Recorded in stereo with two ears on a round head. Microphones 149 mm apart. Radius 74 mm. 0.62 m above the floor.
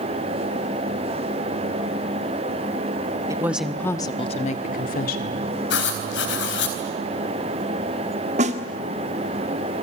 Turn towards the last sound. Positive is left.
turn(degrees=-40)  # may be behind; listen again after turning